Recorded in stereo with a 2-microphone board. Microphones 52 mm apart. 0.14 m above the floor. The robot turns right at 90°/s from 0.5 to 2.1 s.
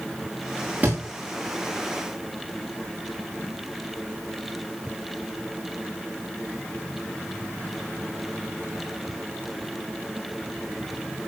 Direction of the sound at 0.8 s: 30° right (ahead or behind).